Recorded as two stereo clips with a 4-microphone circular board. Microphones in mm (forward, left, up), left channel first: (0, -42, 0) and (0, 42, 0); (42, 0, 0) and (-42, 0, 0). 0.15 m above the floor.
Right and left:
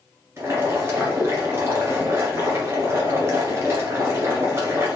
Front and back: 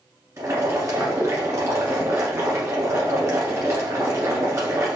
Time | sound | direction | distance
0.4 | boiling | 135° left | 1.4 m